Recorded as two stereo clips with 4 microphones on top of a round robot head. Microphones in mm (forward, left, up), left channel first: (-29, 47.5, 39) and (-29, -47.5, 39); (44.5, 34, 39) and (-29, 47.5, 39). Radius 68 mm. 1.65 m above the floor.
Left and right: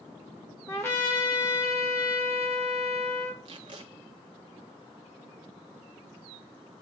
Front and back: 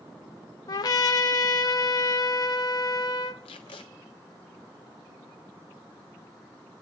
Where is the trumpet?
20° left, 1.5 m.